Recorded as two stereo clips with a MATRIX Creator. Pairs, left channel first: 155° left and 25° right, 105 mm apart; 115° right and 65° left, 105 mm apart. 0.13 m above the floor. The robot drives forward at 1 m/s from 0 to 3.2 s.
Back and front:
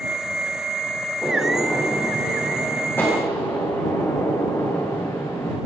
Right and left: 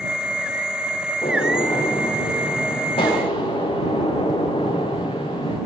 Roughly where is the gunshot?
Behind right.